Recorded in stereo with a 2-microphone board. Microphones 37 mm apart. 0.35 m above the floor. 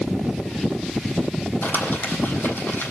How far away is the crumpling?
About 4 m.